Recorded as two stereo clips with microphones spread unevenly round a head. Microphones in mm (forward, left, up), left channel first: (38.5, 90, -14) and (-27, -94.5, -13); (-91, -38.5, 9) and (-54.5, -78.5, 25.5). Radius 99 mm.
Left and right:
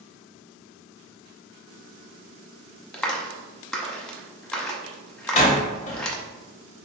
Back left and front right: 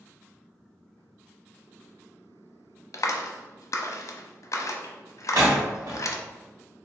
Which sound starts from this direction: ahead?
A door slam, at 5.3 s.